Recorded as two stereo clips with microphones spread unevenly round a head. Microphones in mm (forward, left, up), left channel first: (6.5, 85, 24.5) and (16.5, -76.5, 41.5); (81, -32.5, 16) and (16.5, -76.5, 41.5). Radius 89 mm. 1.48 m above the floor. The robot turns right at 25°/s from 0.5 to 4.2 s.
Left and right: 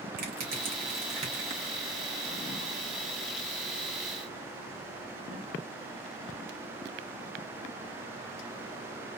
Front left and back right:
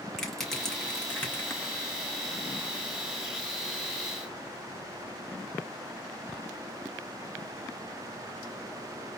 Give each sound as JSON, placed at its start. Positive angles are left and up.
{"t": 0.2, "sound": "crushing", "azimuth_deg": -50, "distance_m": 2.5}